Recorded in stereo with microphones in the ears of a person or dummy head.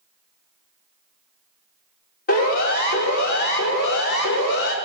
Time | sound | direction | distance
2.3 | a siren | 50° left (ahead or behind) | 5.5 m